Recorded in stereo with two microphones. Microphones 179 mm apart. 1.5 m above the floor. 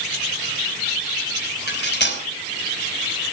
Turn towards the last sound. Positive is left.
turn(degrees=65)  # may be behind; listen again after turning